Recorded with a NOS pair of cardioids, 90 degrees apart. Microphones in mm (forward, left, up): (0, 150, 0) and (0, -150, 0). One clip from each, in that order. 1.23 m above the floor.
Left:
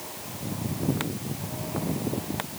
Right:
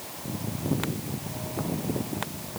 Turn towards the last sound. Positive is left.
No sound to turn to.